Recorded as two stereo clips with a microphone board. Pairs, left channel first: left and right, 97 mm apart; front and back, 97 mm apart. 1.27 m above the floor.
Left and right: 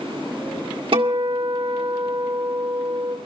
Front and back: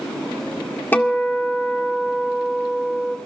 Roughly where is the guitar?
Right.